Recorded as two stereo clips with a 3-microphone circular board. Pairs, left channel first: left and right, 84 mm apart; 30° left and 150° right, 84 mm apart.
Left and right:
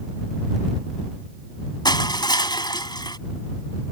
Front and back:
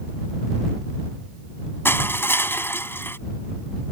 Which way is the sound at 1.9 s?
85° left.